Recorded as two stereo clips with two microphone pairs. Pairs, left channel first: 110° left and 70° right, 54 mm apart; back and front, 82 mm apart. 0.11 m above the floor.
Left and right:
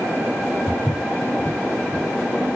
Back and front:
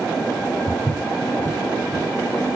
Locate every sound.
0.7 s footsteps: 45° left, 8 m; by 2.5 s 40° left, 9 m